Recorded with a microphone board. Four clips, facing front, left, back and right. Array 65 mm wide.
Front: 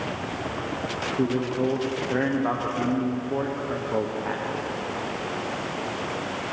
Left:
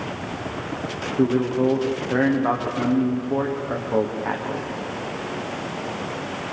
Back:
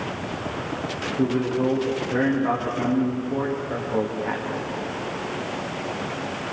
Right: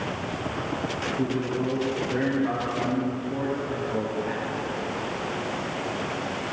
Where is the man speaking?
80° left, 6 m.